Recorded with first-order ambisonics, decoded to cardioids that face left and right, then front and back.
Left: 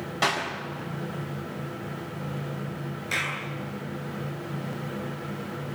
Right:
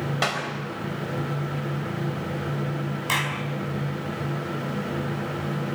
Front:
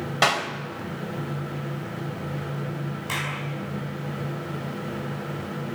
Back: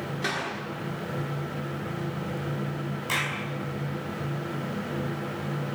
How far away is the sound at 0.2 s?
About 4 m.